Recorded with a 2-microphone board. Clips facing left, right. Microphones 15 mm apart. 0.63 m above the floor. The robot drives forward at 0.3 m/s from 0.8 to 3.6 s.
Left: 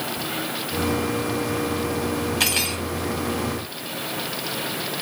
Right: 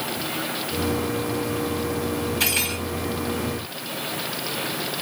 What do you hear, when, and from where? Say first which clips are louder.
2.4 s cutlery clinking: left 1 dB; 30° left (ahead or behind), 2.0 m; by 2.8 s 25° left (ahead or behind), 2 m